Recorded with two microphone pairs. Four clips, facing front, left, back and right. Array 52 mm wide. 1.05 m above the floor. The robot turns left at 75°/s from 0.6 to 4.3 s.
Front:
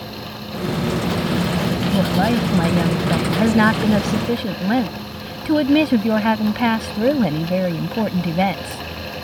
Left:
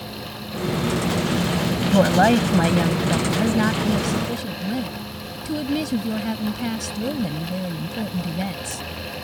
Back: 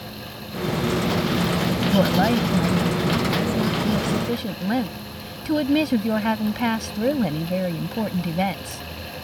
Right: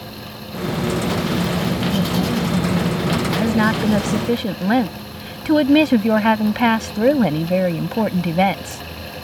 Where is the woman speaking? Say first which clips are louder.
Left 5 dB, even; 110° left; by 8.8 s 70° right.